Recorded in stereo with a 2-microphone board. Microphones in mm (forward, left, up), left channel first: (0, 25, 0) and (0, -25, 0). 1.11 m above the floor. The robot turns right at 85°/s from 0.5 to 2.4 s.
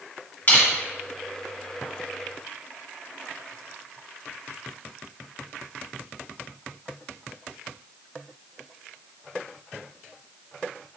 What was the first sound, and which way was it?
Crushing, 45° left (ahead or behind).